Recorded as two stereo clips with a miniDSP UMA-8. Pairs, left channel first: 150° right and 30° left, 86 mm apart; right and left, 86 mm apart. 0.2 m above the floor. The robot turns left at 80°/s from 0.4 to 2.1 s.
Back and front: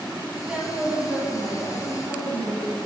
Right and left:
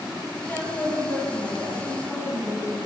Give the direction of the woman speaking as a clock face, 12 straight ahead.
1 o'clock.